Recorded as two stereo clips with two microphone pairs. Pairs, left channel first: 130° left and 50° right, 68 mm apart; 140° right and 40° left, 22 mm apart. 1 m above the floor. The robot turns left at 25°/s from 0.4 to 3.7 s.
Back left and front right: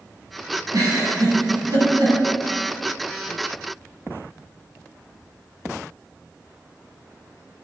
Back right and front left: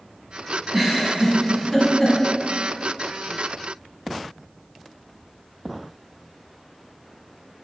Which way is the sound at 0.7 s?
30° right.